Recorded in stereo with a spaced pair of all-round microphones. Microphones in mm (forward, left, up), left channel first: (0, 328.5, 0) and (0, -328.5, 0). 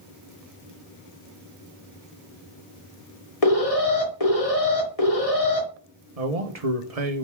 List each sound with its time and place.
3.4 s an alarm: 65° left (ahead or behind), 2.5 m
6.2 s a man speaking: 70° right (ahead or behind), 1.2 m